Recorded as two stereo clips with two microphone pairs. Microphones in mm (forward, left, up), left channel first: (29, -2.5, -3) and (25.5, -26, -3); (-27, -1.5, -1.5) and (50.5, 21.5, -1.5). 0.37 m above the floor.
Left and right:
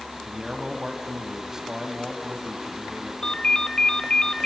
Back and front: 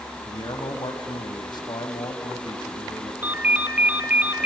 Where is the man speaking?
165° right, 2 m.